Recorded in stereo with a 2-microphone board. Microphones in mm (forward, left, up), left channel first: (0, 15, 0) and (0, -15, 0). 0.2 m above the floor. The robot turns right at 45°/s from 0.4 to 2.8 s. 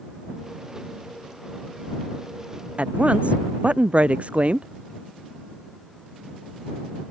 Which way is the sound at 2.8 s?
50° right (ahead or behind).